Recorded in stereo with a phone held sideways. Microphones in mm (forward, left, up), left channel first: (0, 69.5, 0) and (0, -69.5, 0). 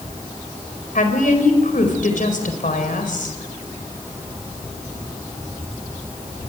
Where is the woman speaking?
75° left (ahead or behind), 4 m.